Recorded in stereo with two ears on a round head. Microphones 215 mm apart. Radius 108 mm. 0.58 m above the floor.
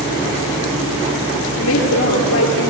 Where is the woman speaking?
75° left (ahead or behind), 9.5 m.